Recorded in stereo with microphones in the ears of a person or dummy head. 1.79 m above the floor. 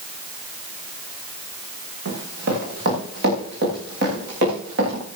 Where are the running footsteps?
65° right (ahead or behind), 8 m.